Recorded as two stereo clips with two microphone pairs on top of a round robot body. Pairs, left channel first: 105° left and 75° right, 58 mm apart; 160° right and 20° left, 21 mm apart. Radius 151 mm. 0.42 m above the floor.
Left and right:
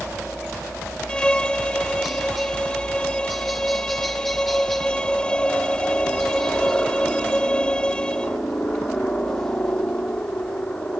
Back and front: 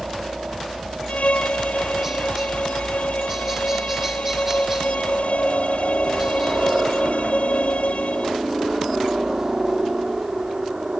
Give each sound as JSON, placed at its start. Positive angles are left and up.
{"t": 0.0, "sound": "a helicopter", "azimuth_deg": 35}
{"t": 1.1, "sound": "a violin", "azimuth_deg": 180}